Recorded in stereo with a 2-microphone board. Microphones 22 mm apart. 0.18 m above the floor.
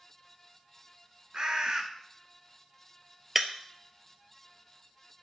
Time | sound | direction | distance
1.3 | a bird | 50° right (ahead or behind) | 1.1 m
3.4 | breaking glass | 20° right (ahead or behind) | 0.6 m